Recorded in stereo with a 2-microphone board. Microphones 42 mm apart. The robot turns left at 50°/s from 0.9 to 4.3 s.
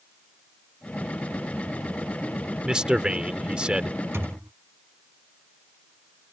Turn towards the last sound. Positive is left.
turn(degrees=-80)